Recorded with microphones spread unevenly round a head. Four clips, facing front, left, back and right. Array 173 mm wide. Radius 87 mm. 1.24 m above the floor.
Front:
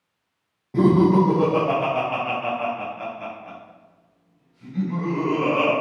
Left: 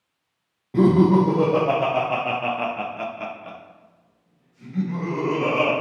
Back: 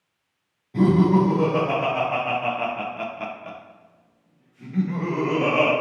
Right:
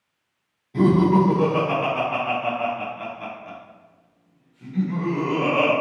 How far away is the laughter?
About 1.2 m.